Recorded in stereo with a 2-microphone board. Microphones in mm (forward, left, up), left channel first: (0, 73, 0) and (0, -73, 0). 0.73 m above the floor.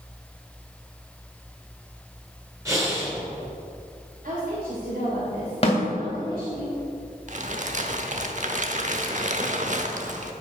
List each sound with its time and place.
2.6 s breathing: 20° right (ahead or behind), 2.5 m
4.2 s a woman speaking: 75° right (ahead or behind), 2.5 m
5.6 s a snare drum: 45° left (ahead or behind), 2.5 m
7.3 s crumpling: 55° right (ahead or behind), 0.9 m